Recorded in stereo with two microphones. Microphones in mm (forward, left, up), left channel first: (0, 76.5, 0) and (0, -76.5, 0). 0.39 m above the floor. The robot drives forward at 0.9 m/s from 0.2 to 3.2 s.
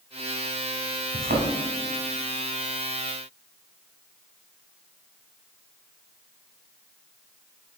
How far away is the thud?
About 1.6 m.